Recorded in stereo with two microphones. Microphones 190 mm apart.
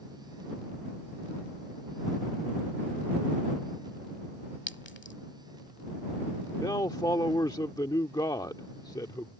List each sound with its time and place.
4.7 s a clink: 70° left (ahead or behind)
6.5 s a man speaking: 20° left (ahead or behind)